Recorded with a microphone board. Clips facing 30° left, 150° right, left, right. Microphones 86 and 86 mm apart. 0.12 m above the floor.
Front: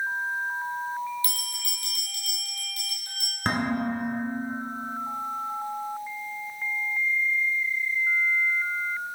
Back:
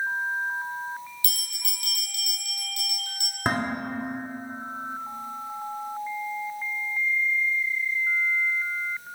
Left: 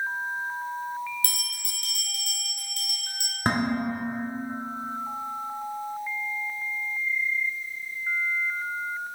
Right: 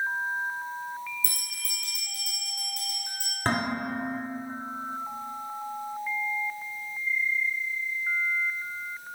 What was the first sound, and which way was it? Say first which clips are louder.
A bell: front 4 dB, left 3 dB; 85° left.